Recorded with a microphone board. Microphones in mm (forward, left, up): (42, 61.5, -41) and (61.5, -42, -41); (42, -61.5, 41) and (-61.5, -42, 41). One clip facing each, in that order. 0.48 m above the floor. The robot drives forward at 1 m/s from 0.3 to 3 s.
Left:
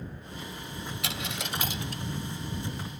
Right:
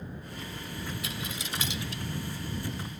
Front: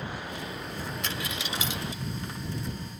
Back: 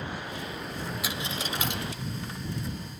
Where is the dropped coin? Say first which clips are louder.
Left 2 dB, back 1 dB; 85° left, 0.5 m; by 2.0 s 150° left, 1.1 m.